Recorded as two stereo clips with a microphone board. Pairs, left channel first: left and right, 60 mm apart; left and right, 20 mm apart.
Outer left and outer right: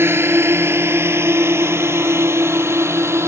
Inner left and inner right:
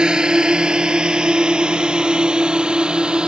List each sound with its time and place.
0.0 s a drone: 45° right (ahead or behind); by 3.3 s 50° right (ahead or behind)